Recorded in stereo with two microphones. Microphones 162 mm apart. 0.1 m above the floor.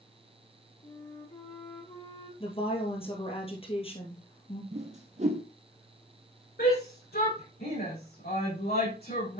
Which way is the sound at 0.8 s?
40° left (ahead or behind).